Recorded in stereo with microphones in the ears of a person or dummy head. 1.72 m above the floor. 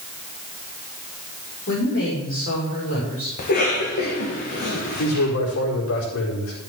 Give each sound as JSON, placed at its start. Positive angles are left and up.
{"t": 1.7, "sound": "a woman speaking", "side_deg": 40, "distance_m": 5.0}
{"t": 3.4, "sound": "a cough", "side_deg": 50, "distance_m": 1.8}
{"t": 5.0, "sound": "a man speaking", "side_deg": 70, "distance_m": 4.5}